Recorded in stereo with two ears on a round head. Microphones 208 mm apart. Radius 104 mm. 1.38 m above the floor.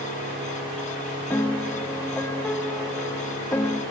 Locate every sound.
1.3 s a piano: 10° left (ahead or behind), 1.8 m